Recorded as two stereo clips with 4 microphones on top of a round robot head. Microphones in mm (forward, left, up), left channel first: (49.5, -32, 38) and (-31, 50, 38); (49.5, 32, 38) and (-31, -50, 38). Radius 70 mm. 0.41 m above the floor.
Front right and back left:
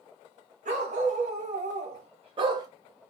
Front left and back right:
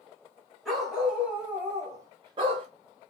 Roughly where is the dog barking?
Behind left.